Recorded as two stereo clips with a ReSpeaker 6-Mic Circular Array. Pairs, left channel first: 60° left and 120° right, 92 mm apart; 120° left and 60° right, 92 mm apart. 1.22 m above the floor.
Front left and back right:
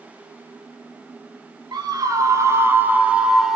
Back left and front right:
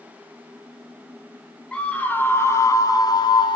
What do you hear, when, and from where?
1.7 s a scream: 160° right, 3.5 m; by 3.6 s 150° left, 3.5 m